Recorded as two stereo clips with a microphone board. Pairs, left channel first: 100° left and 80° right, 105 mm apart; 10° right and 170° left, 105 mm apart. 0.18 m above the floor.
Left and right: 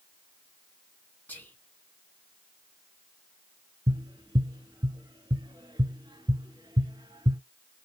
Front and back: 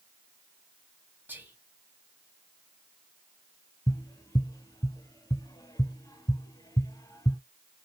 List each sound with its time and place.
1.3 s whispering: 130° left, 1.1 m
3.9 s tapping: 55° right, 0.8 m